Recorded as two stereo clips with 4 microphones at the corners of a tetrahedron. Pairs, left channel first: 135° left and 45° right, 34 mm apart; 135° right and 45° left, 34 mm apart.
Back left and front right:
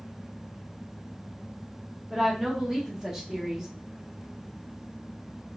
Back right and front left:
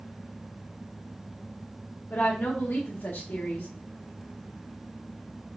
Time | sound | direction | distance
2.1 | a woman speaking | 115° right | 0.9 m